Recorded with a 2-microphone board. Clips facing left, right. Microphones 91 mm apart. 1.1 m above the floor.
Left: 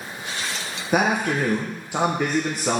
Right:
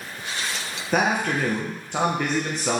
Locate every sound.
0.9 s a man speaking: 5° left (ahead or behind), 0.8 m